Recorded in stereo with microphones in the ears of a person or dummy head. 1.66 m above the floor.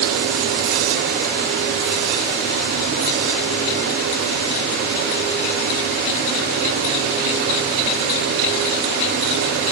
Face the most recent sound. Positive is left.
No sound to turn to.